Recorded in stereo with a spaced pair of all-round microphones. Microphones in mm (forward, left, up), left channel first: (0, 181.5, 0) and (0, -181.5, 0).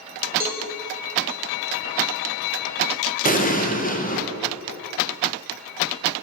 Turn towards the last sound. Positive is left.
turn(degrees=25)  # may be behind; listen again after turning